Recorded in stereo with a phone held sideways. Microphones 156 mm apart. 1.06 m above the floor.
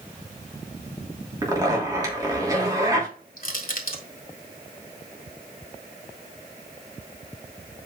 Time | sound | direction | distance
1.4 | a zipper | 25° right (ahead or behind) | 3 m
3.4 | crushing | 65° left (ahead or behind) | 1.6 m